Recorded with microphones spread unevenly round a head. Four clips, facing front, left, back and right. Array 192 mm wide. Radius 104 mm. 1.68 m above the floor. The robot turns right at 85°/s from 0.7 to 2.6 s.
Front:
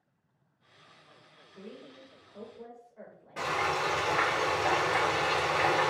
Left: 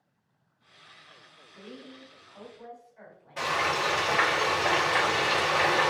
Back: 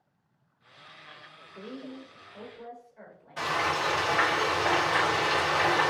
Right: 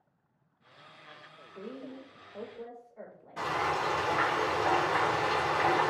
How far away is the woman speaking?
About 1.3 m.